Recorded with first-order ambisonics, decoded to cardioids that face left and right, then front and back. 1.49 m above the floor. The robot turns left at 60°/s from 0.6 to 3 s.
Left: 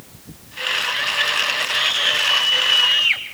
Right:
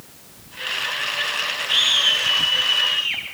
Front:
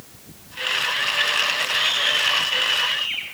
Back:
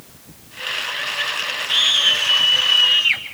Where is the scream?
155° right, 7.5 m; by 3.2 s 125° left, 7.5 m.